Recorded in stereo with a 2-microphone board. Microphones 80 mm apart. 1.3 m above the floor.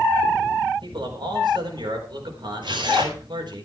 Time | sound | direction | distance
0.8 | a man speaking | 65° right (ahead or behind) | 4.5 m
2.6 | tearing paper | 70° right (ahead or behind) | 4.5 m